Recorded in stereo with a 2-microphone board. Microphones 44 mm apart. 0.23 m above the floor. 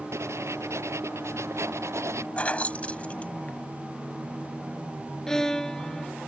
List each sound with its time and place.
0.1 s writing: 90° right
2.4 s keys jangling: 30° left (ahead or behind)
5.3 s a violin: 15° left (ahead or behind)